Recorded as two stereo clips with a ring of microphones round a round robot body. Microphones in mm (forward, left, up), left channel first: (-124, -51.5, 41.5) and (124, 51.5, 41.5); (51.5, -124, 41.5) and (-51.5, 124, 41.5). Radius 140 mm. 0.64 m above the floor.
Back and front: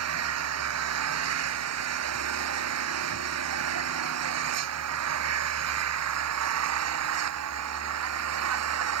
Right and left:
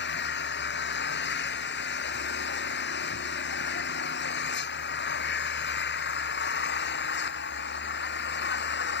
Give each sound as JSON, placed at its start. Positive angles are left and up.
{"t": 0.0, "sound": "an engine running", "azimuth_deg": -15}